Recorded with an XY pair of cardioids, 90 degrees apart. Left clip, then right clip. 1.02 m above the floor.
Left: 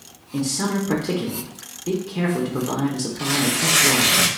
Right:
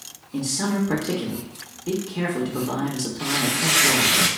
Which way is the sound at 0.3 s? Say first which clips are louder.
Left 1 dB; 20° left.